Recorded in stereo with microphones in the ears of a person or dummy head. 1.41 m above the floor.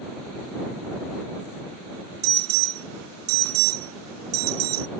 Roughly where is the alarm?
Right.